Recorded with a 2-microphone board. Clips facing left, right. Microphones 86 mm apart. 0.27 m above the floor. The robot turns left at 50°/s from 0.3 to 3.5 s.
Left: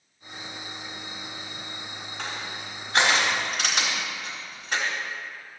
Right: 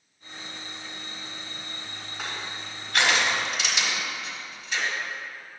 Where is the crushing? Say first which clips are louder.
Even; 5° right (ahead or behind), 3.5 m; by 4.8 s 55° left (ahead or behind), 3.5 m.